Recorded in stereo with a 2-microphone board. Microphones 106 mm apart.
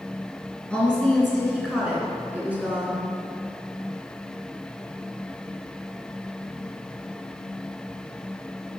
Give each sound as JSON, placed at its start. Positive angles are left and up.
{"t": 0.7, "sound": "a woman speaking", "side_deg": 10, "distance_m": 3.0}